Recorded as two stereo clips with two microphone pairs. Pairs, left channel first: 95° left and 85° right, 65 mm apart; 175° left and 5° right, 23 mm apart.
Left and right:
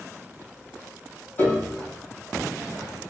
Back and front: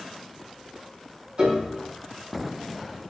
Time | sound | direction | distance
1.4 | a piano | 40° left | 6 m